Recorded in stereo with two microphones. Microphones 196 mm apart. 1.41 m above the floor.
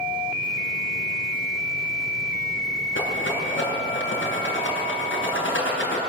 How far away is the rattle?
About 7 m.